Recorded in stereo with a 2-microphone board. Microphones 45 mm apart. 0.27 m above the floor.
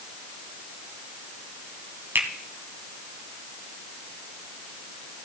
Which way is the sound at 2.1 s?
55° right (ahead or behind).